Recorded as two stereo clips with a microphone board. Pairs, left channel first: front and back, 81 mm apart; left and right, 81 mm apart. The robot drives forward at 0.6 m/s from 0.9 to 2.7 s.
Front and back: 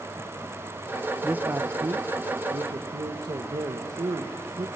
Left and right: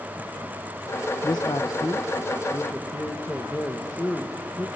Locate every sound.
1.2 s a man speaking: 105° left, 0.6 m; by 4.7 s 155° left, 1.2 m